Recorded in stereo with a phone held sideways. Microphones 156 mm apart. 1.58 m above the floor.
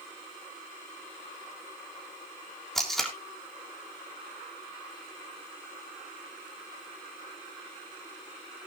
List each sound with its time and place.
2.8 s tape being pulled: centre (ahead or behind), 3.5 m